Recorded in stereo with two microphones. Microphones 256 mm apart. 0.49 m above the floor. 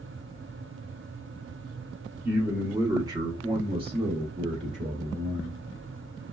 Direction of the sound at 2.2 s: 5° right (ahead or behind).